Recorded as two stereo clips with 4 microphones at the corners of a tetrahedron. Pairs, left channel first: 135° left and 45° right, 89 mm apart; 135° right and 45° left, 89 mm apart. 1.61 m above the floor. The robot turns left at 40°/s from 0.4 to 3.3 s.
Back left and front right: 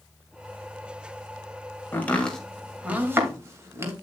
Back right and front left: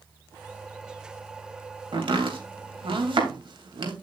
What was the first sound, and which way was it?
Chopping, 70° left.